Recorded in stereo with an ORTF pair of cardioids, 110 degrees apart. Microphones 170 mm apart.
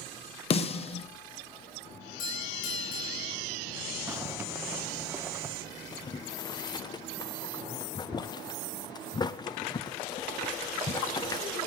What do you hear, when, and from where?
0.5 s a snare drum: 35° left, 1.0 m
2.2 s a doorbell: 60° left, 6 m
4.1 s a zipper: 15° right, 1.1 m
5.9 s boiling: 25° left, 0.7 m